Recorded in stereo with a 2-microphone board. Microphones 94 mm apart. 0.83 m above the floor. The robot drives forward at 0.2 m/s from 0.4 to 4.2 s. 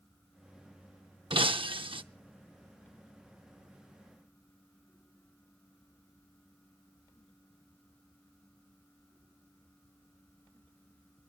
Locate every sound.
1.3 s breaking glass: 65° right (ahead or behind), 0.7 m; by 2.0 s 70° right (ahead or behind), 0.7 m